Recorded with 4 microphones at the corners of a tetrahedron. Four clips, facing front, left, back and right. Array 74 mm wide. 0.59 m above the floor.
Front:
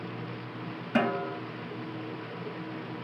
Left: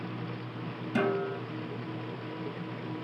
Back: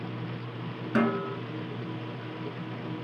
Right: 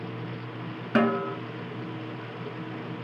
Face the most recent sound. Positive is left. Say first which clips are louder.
# right 5 dB, back 1 dB
turn(degrees=-95)